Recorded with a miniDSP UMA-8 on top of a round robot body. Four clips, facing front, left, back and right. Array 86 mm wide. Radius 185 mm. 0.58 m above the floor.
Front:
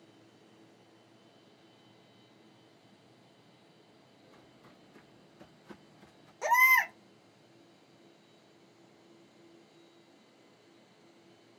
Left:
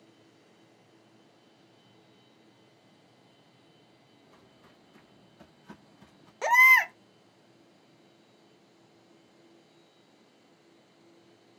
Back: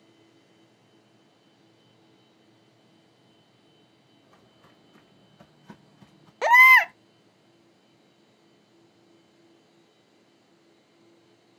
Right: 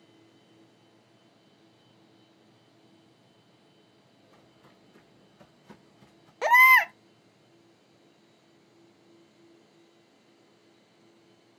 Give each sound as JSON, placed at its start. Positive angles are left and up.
{"t": 4.2, "sound": "footsteps", "azimuth_deg": -175, "distance_m": 2.0}
{"t": 6.4, "sound": "a baby crying", "azimuth_deg": -165, "distance_m": 0.5}